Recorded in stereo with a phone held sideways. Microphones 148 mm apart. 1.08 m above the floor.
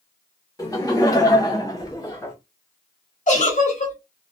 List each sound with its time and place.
0.6 s laughter: 25° left (ahead or behind), 1.0 m; by 2.4 s 20° left (ahead or behind), 0.7 m
3.3 s a giggle: 55° left (ahead or behind), 0.9 m